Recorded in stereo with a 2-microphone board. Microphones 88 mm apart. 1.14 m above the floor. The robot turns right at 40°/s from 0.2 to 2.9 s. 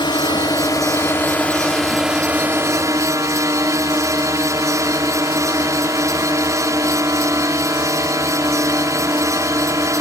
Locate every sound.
0.0 s a drone: 115° left; by 10.0 s 140° right